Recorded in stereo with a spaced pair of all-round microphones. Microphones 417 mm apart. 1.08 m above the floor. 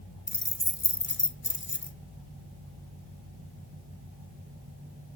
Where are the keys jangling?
25° left (ahead or behind), 0.8 m.